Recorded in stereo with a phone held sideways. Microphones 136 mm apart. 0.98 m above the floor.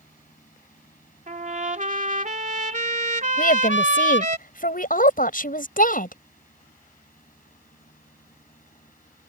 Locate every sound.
0.0 s a fan: 75° left (ahead or behind)
1.3 s a trumpet: 65° right (ahead or behind)
3.4 s a woman speaking: 85° left